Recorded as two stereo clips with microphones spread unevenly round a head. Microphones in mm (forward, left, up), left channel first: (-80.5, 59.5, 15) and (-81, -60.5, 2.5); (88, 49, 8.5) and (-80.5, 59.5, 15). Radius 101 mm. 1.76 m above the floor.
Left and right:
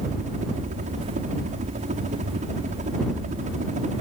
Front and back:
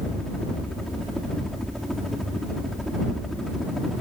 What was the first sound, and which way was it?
A helicopter, 90° right.